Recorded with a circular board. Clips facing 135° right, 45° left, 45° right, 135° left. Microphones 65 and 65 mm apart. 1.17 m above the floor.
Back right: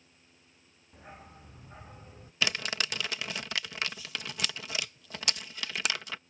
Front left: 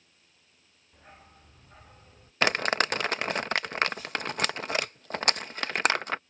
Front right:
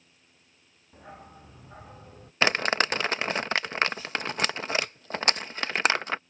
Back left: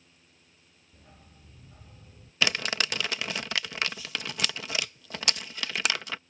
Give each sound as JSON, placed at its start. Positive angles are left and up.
{"t": 0.9, "sound": "a dog barking", "azimuth_deg": -55}
{"t": 2.4, "sound": "crumpling", "azimuth_deg": 5}